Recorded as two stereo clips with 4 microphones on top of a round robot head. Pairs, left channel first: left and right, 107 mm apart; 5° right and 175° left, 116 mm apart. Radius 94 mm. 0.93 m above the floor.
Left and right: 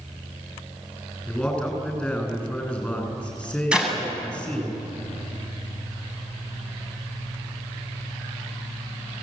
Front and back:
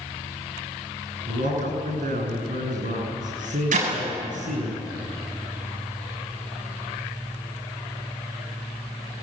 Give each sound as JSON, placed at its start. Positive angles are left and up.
{"t": 1.3, "sound": "a man speaking", "azimuth_deg": 170, "distance_m": 9.5}
{"t": 3.7, "sound": "a clap", "azimuth_deg": -170, "distance_m": 8.0}